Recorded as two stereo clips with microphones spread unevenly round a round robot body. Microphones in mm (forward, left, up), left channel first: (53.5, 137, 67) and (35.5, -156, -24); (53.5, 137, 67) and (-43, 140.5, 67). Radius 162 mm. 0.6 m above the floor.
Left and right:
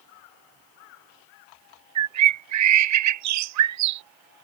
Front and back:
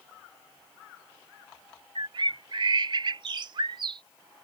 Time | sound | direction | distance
1.9 | a bird | 125° right | ?